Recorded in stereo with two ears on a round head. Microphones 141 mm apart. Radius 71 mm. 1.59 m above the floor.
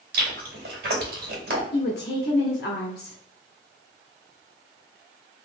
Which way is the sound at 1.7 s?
80° left.